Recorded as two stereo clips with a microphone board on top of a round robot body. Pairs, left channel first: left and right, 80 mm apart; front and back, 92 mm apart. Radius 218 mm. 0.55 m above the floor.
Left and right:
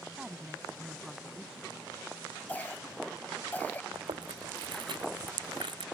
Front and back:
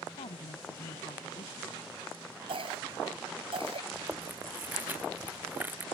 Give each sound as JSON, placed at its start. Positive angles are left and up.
{"t": 0.2, "sound": "a woman speaking", "azimuth_deg": -5}
{"t": 2.5, "sound": "a cough", "azimuth_deg": 160}
{"t": 3.9, "sound": "chewing", "azimuth_deg": -110}